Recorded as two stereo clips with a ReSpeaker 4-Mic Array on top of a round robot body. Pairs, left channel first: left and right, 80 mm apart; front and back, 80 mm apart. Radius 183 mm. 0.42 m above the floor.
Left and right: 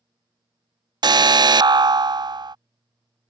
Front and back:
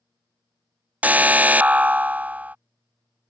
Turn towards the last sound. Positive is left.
turn(degrees=-110)